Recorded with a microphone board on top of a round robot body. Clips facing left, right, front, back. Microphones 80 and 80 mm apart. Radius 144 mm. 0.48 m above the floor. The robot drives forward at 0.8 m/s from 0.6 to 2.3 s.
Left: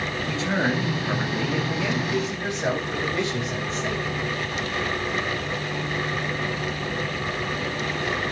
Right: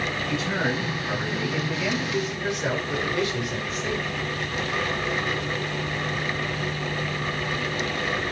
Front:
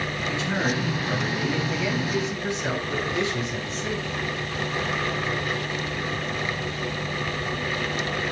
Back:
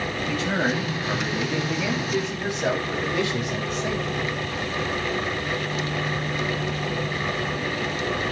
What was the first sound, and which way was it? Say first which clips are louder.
A man speaking: left 3 dB, back 2 dB; 145° left.